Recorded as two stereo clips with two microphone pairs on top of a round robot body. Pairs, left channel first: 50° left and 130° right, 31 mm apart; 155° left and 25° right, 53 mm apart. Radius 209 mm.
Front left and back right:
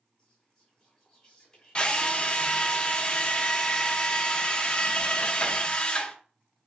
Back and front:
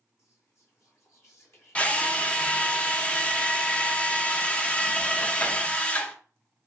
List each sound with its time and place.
0.2 s whispering: 125° left, 1.6 m
1.8 s a drill: 100° left, 0.8 m